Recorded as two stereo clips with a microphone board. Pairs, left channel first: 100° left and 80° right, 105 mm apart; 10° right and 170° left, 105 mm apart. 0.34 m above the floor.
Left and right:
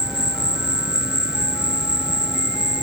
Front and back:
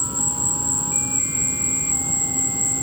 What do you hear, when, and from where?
0.0 s an insect: 160° right